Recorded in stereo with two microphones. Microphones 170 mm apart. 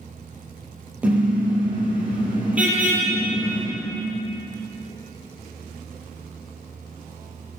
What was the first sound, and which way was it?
A car horn, 10° right (ahead or behind).